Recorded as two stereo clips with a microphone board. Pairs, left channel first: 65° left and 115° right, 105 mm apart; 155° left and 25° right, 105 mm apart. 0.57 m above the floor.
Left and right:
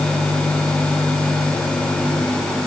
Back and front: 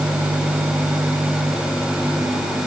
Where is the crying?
No crying in this recording.